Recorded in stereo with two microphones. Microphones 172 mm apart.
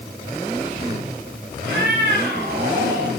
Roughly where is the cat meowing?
Right.